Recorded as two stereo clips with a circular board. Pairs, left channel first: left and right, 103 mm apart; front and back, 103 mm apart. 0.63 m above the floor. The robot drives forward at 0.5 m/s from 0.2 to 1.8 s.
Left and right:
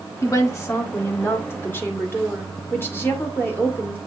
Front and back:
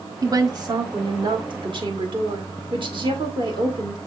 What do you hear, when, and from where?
0.2 s a woman speaking: 140° left, 1.4 m; by 4.0 s 155° left, 2 m